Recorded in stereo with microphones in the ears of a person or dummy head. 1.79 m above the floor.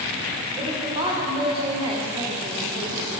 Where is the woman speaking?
25° right (ahead or behind), 0.9 m.